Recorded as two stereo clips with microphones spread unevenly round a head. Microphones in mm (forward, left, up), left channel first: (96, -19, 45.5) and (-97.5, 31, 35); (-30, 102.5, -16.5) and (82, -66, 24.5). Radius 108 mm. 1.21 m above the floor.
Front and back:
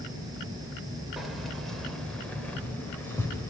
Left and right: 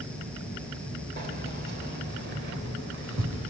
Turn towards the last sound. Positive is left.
turn(degrees=-90)